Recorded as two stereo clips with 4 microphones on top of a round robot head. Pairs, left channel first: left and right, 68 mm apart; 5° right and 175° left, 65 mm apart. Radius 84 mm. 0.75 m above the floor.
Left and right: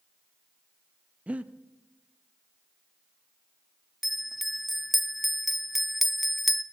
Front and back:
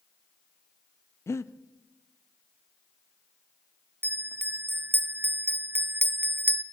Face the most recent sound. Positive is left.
turn(degrees=180)